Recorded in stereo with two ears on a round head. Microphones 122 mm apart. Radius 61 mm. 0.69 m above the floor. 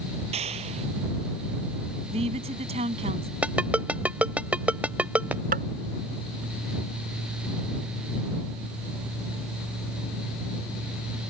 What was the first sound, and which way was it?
A clap, 50° right (ahead or behind).